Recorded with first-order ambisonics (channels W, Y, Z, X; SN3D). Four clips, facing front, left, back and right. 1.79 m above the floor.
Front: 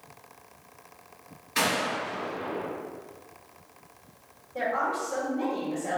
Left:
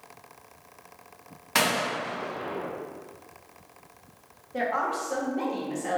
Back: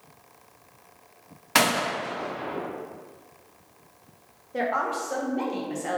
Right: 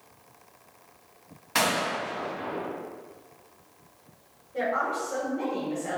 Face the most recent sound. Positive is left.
turn(degrees=150)